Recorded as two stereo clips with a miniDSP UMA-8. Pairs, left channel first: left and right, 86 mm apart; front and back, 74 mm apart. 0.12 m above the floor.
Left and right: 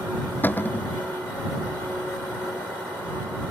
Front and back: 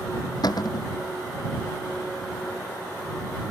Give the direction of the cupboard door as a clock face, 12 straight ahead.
11 o'clock.